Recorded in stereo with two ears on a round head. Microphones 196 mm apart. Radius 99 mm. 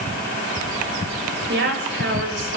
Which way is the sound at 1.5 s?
55° right (ahead or behind).